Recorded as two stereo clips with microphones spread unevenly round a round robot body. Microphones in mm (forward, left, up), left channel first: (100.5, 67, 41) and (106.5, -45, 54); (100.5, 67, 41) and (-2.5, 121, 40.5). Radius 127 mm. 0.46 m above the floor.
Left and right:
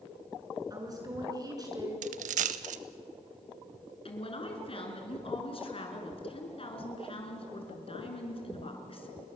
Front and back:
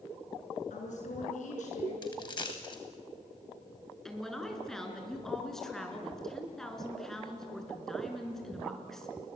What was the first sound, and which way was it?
A woman speaking, 30° right.